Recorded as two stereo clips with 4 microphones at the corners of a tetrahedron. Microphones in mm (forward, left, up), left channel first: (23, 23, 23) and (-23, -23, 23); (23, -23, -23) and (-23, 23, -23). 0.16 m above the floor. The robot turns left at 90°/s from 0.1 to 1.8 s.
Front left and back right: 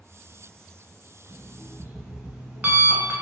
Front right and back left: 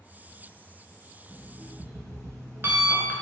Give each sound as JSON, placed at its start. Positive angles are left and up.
{"t": 1.3, "sound": "an alarm clock", "azimuth_deg": -145, "distance_m": 0.7}